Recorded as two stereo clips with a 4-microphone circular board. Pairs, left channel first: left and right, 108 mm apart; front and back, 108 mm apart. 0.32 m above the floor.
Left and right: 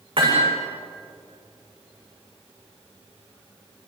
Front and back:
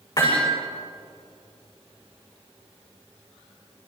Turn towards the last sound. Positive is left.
turn(degrees=-50)